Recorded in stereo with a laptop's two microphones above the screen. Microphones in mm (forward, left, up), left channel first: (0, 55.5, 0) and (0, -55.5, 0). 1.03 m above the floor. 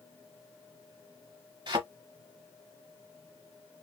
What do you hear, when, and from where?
1.7 s a thud: 45° right (ahead or behind), 1.2 m